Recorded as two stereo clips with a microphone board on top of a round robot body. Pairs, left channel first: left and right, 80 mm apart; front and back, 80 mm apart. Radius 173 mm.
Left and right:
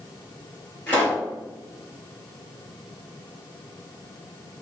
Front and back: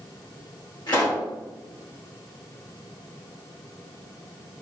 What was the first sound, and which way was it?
A pop, 30° left.